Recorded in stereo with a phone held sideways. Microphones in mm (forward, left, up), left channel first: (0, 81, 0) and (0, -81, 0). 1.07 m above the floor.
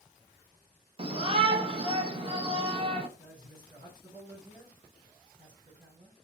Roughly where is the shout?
Right.